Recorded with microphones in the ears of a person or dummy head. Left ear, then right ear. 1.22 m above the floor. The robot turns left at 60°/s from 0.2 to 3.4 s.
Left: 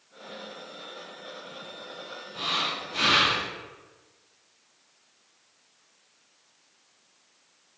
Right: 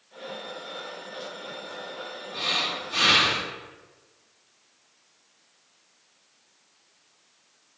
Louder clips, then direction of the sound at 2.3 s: Right 2 dB; 25° right.